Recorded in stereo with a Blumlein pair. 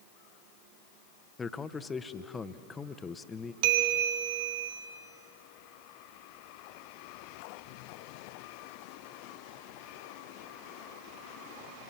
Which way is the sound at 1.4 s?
15° left.